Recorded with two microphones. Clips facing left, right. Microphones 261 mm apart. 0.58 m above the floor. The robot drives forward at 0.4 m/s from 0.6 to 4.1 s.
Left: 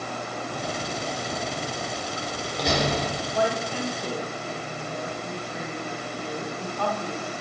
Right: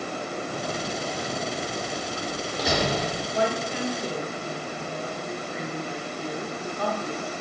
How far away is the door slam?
About 0.6 m.